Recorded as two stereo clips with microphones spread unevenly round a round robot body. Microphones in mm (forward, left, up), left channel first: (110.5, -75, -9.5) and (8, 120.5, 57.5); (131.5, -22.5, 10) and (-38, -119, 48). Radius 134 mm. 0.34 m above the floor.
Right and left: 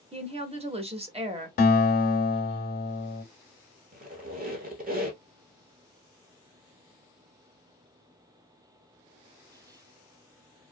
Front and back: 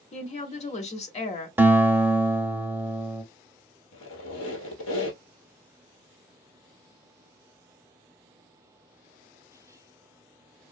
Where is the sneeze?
No sneeze in this recording.